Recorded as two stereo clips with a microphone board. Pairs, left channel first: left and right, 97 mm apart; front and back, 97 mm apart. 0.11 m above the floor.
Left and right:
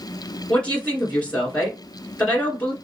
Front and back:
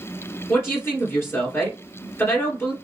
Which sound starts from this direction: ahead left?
A woman speaking, at 0.5 s.